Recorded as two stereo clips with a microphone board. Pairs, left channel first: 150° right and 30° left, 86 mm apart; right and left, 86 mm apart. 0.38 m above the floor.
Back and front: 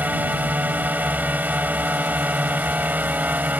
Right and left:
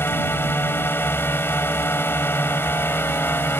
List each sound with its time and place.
0.0 s a drone: 35° right